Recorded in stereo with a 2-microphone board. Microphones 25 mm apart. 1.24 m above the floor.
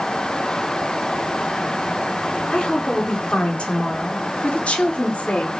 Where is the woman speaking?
45° left (ahead or behind), 4 m; by 5.6 s 70° left (ahead or behind), 3.5 m.